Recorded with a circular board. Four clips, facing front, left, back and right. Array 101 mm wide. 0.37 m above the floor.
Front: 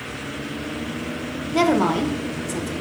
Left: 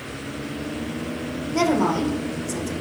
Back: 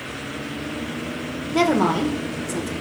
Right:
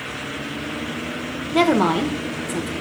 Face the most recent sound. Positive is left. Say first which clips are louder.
# right 3 dB, even
turn(degrees=-90)